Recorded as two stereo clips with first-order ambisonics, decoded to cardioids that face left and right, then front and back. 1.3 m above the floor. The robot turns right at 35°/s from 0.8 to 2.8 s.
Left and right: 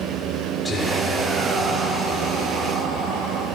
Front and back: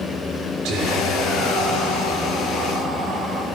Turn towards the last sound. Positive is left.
turn(degrees=-120)